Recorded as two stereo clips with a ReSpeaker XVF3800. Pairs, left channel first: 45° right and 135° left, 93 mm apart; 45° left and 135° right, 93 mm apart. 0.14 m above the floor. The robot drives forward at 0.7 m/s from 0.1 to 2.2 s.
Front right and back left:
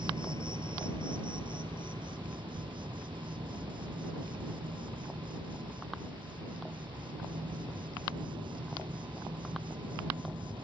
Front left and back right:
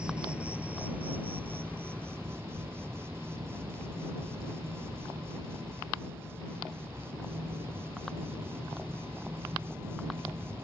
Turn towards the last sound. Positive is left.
turn(degrees=160)